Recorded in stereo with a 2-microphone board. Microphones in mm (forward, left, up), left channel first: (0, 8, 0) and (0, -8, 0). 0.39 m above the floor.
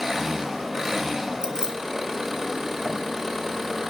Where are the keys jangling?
35° right (ahead or behind), 1.1 m.